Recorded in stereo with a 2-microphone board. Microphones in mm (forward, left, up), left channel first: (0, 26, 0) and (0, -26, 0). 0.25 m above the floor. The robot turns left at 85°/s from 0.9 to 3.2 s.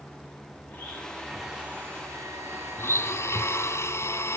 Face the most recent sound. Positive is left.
turn(degrees=80)